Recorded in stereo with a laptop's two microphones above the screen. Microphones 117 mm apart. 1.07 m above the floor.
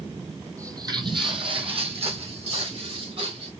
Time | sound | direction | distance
0.6 | footsteps | 25° right (ahead or behind) | 1.3 m